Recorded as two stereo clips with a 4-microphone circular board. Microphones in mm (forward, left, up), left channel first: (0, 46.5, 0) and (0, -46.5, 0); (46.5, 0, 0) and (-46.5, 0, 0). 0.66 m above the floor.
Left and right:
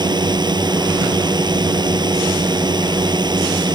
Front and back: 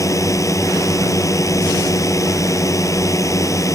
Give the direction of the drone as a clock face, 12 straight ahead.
2 o'clock.